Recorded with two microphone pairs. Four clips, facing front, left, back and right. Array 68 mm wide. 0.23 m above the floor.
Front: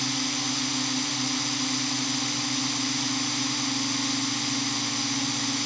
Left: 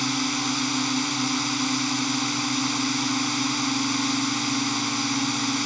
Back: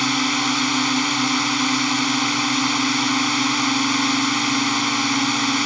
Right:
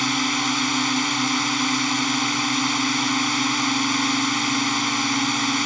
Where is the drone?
155° right.